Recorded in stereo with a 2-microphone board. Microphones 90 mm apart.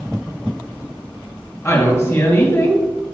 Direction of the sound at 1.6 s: 35° left (ahead or behind).